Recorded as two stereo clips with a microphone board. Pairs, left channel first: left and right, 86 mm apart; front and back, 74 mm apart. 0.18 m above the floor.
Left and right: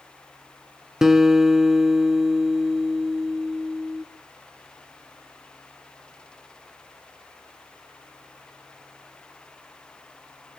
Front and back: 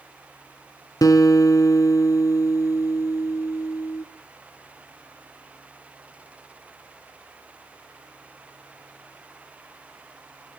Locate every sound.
1.0 s a guitar: 5° right, 1.7 m